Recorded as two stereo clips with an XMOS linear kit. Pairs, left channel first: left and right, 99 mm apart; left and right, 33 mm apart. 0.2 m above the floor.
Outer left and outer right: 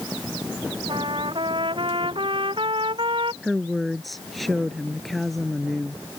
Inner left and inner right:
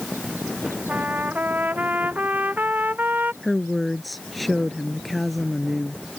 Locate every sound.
0.9 s a trumpet: 60° right (ahead or behind)
3.4 s a woman speaking: centre (ahead or behind)